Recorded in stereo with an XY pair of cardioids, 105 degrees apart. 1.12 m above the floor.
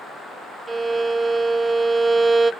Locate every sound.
0.7 s a violin: 25° right, 0.8 m